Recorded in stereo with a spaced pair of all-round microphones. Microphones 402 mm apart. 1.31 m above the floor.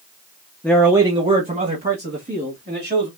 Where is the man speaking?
5° left (ahead or behind), 0.7 m; by 3.1 s 30° right (ahead or behind), 2 m.